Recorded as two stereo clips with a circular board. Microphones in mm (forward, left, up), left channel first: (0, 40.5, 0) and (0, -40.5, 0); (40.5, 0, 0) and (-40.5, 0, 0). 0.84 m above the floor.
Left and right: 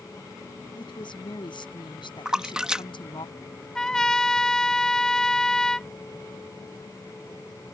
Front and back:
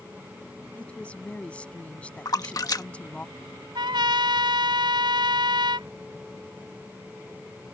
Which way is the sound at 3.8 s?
170° left.